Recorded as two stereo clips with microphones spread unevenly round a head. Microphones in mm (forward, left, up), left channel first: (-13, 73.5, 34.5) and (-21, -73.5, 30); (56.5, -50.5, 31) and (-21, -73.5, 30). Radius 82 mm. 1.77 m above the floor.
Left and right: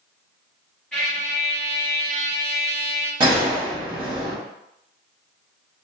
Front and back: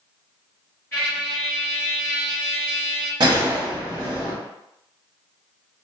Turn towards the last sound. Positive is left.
turn(degrees=-150)